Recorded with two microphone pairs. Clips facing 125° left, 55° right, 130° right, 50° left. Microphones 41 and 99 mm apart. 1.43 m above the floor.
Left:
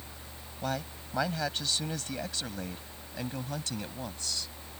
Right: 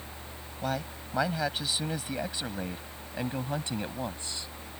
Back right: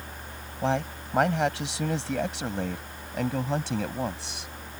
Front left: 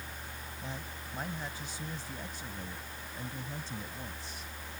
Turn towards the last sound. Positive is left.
turn(degrees=-120)